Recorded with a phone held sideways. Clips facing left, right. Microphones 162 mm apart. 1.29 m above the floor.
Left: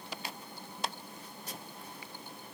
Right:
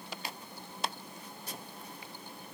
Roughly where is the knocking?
No knocking in this recording.